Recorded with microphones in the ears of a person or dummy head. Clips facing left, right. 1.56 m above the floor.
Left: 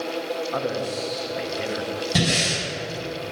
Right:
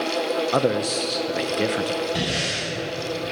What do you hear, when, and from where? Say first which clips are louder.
0.5 s a man speaking: right 6 dB; 50° right (ahead or behind), 0.8 m
2.1 s breathing: left 2 dB; 70° left (ahead or behind), 6.5 m